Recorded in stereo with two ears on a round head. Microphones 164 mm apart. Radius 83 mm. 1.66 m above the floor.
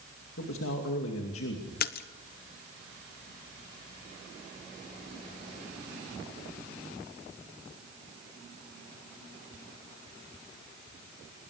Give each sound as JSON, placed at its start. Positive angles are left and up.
{"t": 0.4, "sound": "a man speaking", "side_deg": 80, "distance_m": 2.5}
{"t": 1.8, "sound": "a splash", "side_deg": 55, "distance_m": 1.0}